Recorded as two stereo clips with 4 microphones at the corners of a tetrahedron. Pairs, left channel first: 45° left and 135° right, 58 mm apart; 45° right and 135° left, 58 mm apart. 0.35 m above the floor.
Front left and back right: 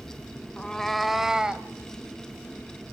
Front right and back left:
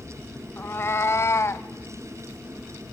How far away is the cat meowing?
About 0.7 m.